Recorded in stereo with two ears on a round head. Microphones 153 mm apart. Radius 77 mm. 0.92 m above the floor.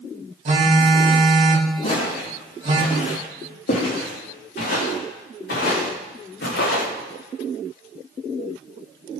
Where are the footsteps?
40° left (ahead or behind), 4 m; by 6.9 s 70° left (ahead or behind), 6 m.